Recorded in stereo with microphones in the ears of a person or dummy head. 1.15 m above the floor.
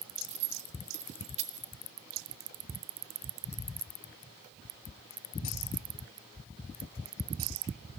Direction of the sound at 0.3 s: 35° right (ahead or behind).